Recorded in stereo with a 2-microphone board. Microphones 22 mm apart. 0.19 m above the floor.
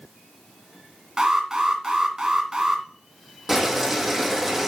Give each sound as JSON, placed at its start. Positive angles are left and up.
{"t": 1.2, "sound": "an alarm", "side_deg": -35, "distance_m": 1.6}
{"t": 3.5, "sound": "boiling", "side_deg": -10, "distance_m": 4.0}